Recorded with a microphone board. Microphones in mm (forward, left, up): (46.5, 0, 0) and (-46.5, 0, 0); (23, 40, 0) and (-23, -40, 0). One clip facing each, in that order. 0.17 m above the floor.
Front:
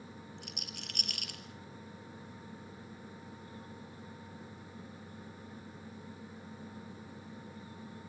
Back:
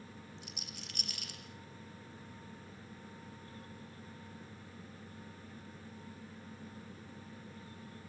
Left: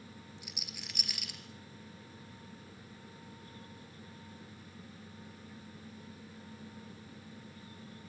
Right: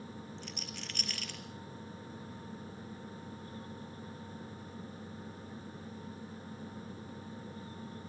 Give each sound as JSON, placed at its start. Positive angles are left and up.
{"t": 0.4, "sound": "a rattle", "azimuth_deg": -20, "distance_m": 2.5}